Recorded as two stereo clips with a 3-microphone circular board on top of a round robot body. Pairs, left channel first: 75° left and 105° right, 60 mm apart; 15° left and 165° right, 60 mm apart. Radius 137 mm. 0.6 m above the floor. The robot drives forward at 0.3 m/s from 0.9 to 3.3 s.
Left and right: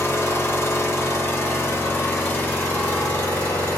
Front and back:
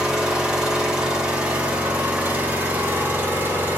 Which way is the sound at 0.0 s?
120° left.